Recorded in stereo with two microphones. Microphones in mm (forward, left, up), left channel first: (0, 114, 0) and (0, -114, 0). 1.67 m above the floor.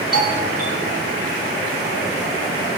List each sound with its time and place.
0.1 s a doorbell: 85° right, 6.5 m